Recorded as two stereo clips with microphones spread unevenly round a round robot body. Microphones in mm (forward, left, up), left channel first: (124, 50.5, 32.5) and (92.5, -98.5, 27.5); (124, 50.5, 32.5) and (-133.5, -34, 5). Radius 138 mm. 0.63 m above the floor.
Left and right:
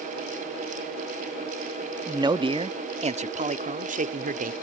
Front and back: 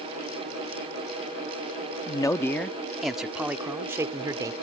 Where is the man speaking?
55° right; by 4.5 s 85° right.